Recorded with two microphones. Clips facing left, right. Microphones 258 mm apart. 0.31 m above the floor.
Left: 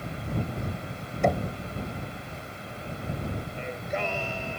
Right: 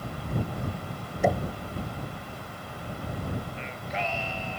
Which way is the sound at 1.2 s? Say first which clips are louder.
Even; 5° right (ahead or behind).